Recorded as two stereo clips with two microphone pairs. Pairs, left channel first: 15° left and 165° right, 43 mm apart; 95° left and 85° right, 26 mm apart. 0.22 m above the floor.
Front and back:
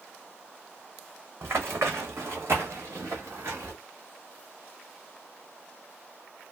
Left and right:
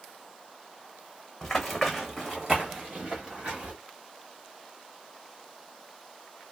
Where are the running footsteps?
165° left, 0.9 m; by 3.7 s 140° right, 1.7 m.